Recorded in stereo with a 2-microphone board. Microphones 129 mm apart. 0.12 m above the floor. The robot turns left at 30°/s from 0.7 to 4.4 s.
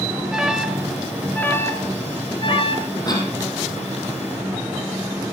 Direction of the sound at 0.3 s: 5° right (ahead or behind).